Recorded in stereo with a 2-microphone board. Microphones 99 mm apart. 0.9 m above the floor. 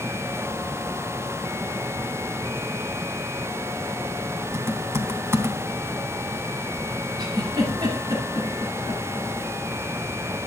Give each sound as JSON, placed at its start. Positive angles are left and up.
{"t": 4.5, "sound": "typing on a keyboard", "side_deg": -25, "distance_m": 2.5}
{"t": 7.2, "sound": "a giggle", "side_deg": -40, "distance_m": 10.0}